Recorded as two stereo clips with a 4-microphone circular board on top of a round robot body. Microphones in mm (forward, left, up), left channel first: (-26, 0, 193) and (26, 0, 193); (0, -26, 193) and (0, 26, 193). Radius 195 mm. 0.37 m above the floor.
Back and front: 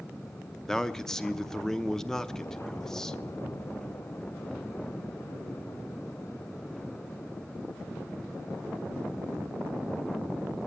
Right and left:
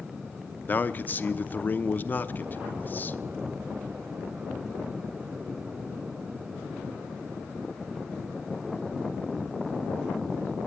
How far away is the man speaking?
About 0.9 m.